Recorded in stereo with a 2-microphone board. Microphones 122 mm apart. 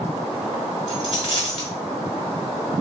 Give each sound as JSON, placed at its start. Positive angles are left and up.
{"t": 0.9, "sound": "a dropped coin", "side_deg": 55, "distance_m": 1.4}